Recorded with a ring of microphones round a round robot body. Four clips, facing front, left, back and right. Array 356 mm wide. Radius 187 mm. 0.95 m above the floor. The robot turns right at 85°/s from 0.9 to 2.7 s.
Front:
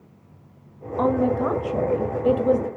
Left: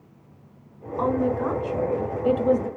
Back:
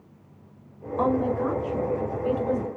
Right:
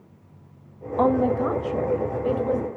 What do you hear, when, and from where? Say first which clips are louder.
1.0 s a woman speaking: right 3 dB, front 3 dB; 85° right, 2 m; by 2.7 s 60° left, 2 m